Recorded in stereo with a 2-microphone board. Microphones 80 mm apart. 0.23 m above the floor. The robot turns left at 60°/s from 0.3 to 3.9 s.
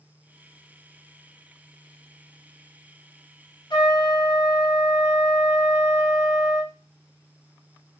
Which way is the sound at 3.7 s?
70° left (ahead or behind).